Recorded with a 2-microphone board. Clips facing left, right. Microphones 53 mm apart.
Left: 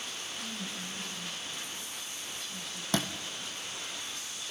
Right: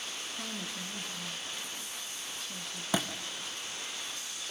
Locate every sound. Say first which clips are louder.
0.3 s a woman speaking: even; 75° right (ahead or behind), 5.5 m
2.9 s a thud: even; 10° right (ahead or behind), 2 m